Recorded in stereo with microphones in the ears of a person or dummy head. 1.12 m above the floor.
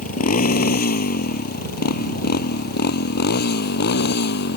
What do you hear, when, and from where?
0.0 s a motorcycle: 45° left (ahead or behind); by 4.6 s 55° left (ahead or behind)